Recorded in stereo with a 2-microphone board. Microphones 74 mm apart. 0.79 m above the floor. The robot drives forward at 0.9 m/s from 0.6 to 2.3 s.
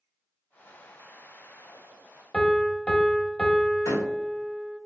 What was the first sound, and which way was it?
A piano, 15° left (ahead or behind).